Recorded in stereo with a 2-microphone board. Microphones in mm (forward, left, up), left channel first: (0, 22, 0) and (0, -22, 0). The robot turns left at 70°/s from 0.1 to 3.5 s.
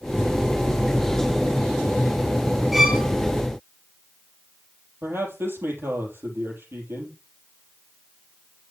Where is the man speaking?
60° right (ahead or behind), 4.5 m.